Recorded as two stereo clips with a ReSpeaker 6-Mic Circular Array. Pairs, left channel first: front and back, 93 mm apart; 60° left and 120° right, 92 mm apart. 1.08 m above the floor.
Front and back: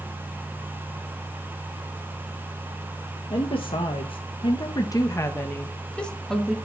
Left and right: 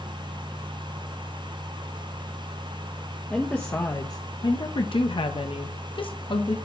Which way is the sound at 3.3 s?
15° right.